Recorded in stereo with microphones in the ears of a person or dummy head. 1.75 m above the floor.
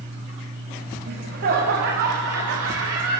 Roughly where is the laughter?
Right.